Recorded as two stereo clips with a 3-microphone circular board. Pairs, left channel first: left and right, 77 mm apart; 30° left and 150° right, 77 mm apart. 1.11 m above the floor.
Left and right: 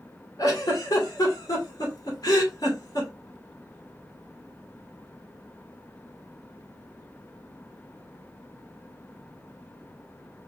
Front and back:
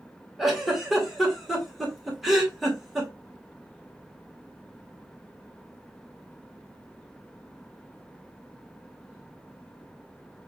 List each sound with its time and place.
0.4 s a giggle: 120° left, 1.8 m